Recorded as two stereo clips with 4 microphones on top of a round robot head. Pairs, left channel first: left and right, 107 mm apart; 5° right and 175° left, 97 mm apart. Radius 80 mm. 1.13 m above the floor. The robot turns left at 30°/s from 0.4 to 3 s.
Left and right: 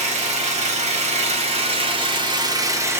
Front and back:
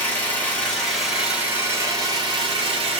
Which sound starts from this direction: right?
An engine running, at 0.0 s.